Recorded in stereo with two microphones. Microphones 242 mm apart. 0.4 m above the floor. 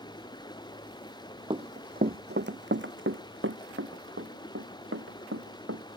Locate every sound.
0.0 s running water: 15° left (ahead or behind)
1.5 s running footsteps: 25° right (ahead or behind); by 5.8 s 65° right (ahead or behind)